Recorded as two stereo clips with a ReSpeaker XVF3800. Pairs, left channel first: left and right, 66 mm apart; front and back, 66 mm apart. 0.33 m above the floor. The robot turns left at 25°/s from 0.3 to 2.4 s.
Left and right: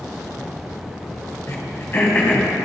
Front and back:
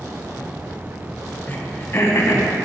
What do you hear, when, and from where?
1.5 s throat clearing: 55° left, 3 m; by 2.5 s 30° left, 3 m